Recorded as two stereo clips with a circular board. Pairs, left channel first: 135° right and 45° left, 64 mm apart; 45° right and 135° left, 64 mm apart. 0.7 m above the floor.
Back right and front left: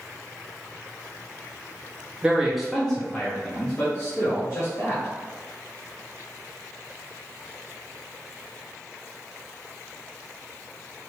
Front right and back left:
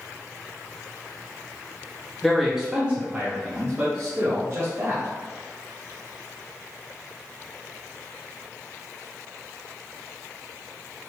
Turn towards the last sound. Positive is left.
turn(degrees=180)